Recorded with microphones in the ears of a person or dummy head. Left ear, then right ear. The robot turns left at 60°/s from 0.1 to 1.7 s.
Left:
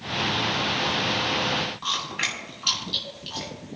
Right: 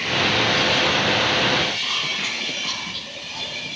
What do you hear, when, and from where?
1.8 s chewing: 50° left (ahead or behind), 6 m